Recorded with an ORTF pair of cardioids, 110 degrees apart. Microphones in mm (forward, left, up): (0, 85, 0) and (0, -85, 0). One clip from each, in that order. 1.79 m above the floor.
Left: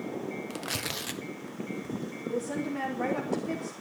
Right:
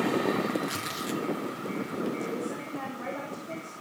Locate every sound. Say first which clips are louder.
0.5 s tearing paper: right 2 dB; 30° left, 1.4 m
2.2 s a woman speaking: left 1 dB; 70° left, 4.5 m